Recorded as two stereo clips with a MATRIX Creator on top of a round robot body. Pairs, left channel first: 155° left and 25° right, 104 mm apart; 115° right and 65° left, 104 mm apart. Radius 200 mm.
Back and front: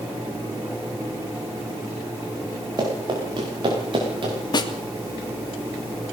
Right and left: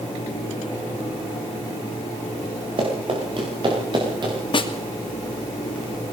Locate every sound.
2.8 s running footsteps: 30° left, 7.5 m; by 4.3 s 20° left, 7 m
4.5 s a snare drum: 155° right, 3 m